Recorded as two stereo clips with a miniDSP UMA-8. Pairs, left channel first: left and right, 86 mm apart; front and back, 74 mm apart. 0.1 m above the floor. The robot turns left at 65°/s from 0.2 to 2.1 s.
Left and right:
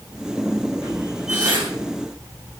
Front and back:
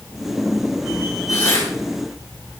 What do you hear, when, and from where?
1.3 s tearing paper: 25° right, 6.5 m; by 1.7 s 50° right, 6.5 m